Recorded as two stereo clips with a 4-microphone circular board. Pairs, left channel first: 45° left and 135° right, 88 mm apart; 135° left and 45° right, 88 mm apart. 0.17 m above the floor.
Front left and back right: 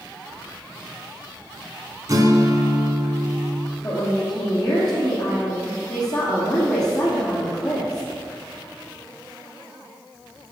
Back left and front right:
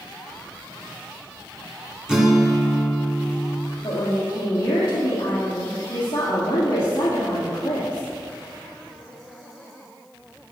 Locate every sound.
2.1 s a guitar: 125° right, 2 m
3.8 s a woman speaking: 85° left, 5.5 m